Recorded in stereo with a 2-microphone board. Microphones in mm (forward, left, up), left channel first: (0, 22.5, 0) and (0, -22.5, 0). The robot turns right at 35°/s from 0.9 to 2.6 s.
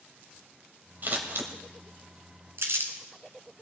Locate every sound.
1.0 s scissors: 45° right (ahead or behind), 1.7 m; by 1.5 s 60° right (ahead or behind), 1.7 m
2.6 s crumpling: 70° right (ahead or behind), 1.7 m